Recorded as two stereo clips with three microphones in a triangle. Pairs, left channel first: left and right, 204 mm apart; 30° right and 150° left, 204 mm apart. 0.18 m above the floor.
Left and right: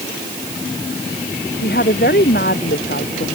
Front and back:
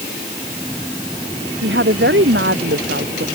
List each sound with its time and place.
1.6 s a woman speaking: 125° left